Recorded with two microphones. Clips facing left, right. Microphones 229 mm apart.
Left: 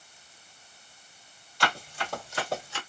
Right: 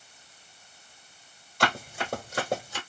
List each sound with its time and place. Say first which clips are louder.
1.6 s running footsteps: right 3 dB; 50° right (ahead or behind), 1.8 m; by 2.8 s 45° right (ahead or behind), 1.8 m